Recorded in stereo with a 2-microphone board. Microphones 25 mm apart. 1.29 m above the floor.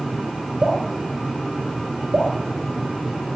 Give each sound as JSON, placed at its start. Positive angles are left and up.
{"t": 0.6, "sound": "dripping", "side_deg": -75, "distance_m": 4.5}